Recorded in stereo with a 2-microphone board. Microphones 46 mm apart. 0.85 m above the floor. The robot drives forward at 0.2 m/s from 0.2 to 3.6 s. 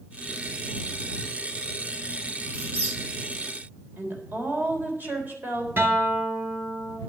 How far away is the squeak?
About 9 m.